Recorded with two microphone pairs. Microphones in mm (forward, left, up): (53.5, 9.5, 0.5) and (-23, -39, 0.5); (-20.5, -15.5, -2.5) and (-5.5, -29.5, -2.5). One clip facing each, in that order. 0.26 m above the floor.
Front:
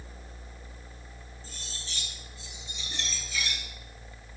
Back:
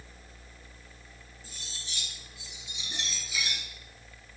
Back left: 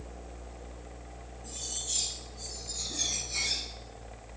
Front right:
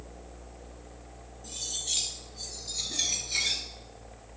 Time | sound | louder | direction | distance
1.4 | cutlery clinking | front 1 dB, front right 4 dB | 65° right | 2.5 m